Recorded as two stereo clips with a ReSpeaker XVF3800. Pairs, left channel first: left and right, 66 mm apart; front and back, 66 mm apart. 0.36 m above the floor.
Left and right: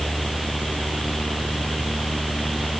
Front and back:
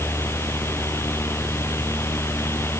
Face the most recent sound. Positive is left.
No sound to turn to.